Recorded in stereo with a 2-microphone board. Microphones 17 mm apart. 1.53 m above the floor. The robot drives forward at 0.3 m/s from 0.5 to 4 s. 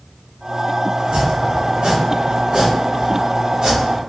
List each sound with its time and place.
1.0 s chopping: 70° right (ahead or behind), 0.9 m; by 4.0 s 40° right (ahead or behind), 1.3 m